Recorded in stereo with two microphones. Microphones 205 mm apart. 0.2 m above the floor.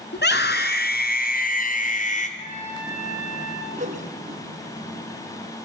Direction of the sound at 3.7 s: 35° right (ahead or behind).